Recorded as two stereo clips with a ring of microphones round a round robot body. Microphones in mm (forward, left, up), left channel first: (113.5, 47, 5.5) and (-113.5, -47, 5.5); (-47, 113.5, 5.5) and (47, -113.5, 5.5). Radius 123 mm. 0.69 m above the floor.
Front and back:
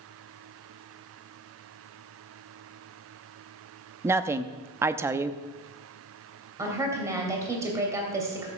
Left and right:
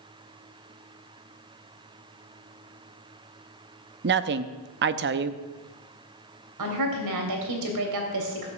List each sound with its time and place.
4.0 s a woman speaking: 80° right, 0.7 m
6.6 s a woman speaking: 80° right, 2.5 m